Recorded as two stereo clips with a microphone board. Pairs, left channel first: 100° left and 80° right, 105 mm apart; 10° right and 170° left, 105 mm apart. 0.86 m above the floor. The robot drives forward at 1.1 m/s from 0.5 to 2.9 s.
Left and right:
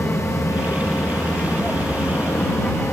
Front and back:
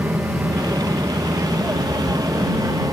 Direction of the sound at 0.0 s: 155° left.